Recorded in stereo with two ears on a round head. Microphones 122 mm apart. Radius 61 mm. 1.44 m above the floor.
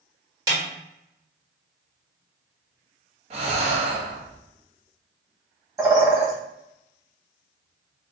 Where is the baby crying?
No baby crying in this recording.